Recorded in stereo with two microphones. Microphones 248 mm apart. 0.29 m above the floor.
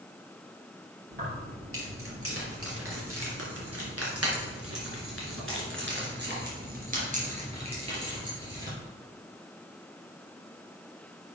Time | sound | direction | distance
1.1 | keys jangling | 55° right (ahead or behind) | 4 m